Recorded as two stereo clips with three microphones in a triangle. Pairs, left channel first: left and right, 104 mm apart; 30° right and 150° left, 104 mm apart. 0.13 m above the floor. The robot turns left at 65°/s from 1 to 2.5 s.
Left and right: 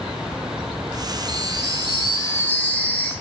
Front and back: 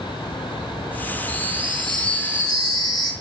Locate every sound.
1.3 s a chime: 95° left, 1.6 m; by 3.1 s 15° left, 1.6 m